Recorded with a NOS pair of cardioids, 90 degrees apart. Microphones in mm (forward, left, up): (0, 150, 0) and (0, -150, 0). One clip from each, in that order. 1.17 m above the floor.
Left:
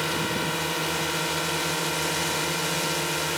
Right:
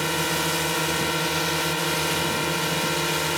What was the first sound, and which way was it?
A drone, 15° right.